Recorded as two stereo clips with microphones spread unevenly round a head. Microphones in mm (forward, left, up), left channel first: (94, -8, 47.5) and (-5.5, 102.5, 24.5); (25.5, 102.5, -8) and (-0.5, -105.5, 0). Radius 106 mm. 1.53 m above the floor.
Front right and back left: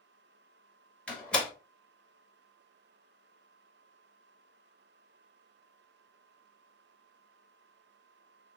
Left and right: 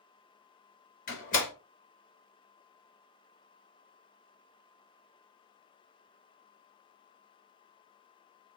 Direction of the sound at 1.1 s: 30° left.